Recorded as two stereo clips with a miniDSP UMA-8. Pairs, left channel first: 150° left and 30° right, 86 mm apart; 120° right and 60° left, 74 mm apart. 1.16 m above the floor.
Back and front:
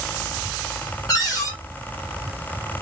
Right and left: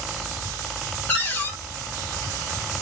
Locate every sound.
1.1 s a cupboard door: straight behind, 1.1 m